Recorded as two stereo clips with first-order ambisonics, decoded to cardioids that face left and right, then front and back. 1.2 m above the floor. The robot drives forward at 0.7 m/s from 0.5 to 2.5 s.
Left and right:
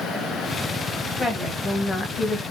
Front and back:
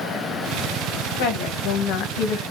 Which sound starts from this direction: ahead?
A woman speaking, at 1.2 s.